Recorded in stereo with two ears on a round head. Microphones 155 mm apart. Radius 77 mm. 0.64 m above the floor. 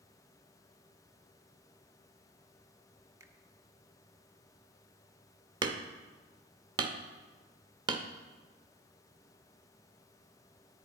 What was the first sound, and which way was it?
A finger snap, 20° right (ahead or behind).